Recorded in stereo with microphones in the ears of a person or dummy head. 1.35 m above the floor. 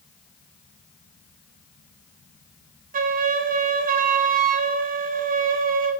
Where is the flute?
40° right (ahead or behind), 0.6 m.